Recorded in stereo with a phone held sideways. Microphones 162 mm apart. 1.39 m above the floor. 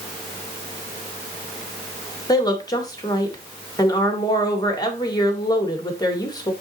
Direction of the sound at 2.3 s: 25° left (ahead or behind).